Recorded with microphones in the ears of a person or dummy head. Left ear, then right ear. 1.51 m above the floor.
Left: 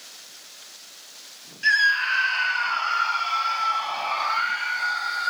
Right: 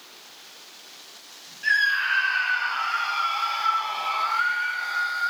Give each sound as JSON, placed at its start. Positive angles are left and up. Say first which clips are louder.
{"t": 1.6, "sound": "a scream", "louder": "left 2 dB", "side_deg": 25, "distance_m": 1.8}